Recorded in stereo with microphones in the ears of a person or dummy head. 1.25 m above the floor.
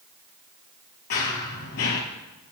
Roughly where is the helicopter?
No helicopter in this recording.